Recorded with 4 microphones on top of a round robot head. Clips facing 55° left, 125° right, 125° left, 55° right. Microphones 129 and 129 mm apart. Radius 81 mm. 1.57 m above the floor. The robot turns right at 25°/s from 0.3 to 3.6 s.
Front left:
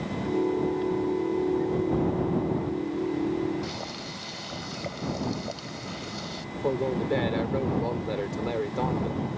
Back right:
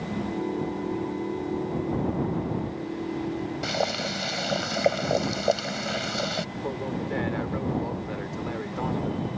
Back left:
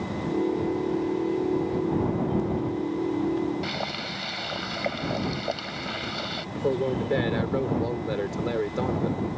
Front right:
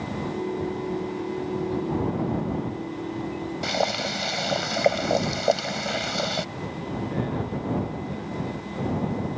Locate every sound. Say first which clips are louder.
3.6 s boiling: back right 8 dB, front right 6 dB; 100° right
6.5 s a man speaking: front left 4 dB, back left 6 dB; 115° left